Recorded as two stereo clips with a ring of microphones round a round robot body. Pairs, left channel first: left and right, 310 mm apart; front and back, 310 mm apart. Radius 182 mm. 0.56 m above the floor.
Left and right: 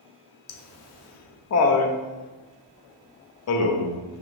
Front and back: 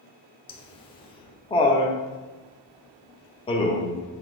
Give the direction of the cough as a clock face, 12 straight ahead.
I don't hear a cough.